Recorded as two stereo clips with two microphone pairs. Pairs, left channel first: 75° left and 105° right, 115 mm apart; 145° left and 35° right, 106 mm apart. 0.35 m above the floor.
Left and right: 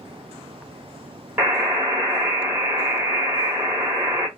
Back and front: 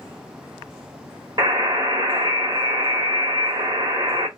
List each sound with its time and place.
1.4 s a buzzer: 40° right, 1.5 m